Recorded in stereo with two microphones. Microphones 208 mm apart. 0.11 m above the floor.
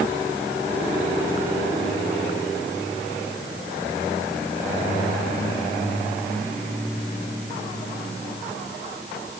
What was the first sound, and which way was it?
Only background noise.